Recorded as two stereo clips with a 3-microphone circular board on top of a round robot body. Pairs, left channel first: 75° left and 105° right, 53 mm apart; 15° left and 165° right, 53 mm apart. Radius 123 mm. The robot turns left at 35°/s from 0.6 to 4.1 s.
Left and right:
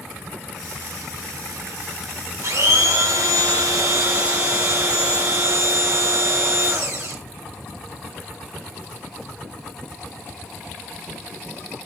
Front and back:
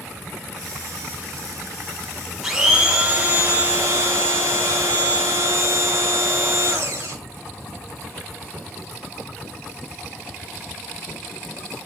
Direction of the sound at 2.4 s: 85° right.